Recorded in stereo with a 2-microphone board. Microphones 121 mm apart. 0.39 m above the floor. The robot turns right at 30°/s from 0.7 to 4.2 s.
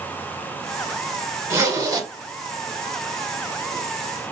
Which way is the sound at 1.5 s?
25° right (ahead or behind).